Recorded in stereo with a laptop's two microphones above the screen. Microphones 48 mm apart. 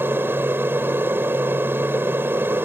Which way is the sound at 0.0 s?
50° right (ahead or behind).